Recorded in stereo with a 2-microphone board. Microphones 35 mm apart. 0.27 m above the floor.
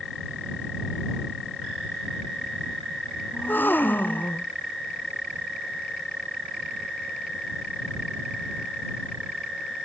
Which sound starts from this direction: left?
A gasp, at 3.3 s.